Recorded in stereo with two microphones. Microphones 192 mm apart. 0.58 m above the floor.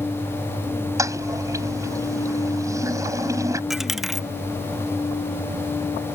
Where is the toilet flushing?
15° right (ahead or behind).